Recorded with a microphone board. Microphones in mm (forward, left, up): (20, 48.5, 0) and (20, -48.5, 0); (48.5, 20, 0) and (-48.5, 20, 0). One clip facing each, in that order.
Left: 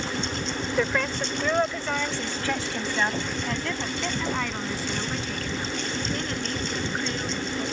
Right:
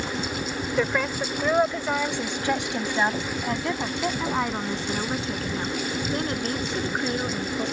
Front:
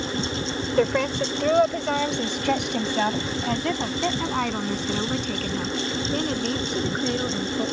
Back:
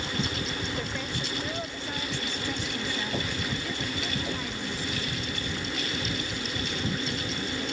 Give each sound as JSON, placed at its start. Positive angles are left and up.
{"t": 0.8, "sound": "a woman speaking", "azimuth_deg": -5}